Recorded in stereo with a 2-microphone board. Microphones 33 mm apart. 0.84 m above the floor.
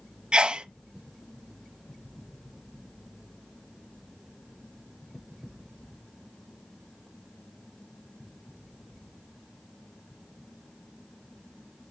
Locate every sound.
0.3 s a sneeze: 25° right (ahead or behind), 0.6 m